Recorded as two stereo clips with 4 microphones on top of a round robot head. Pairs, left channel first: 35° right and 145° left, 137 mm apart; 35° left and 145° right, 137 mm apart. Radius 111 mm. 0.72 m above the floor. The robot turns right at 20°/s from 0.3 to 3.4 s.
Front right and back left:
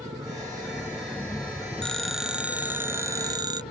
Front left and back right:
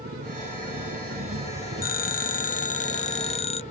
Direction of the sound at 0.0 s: 150° right.